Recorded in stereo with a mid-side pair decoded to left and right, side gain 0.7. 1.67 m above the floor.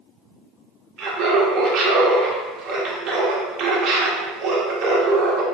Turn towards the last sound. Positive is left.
turn(degrees=-45)